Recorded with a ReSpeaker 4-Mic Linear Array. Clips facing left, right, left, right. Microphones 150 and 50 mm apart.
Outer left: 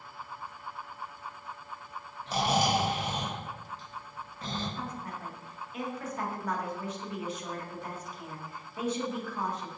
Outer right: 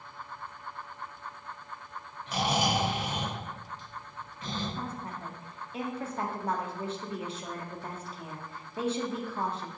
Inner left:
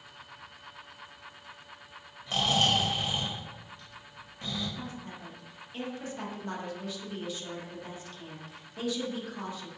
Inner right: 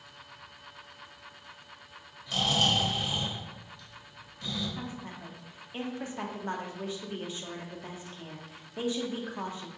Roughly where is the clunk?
I don't hear a clunk.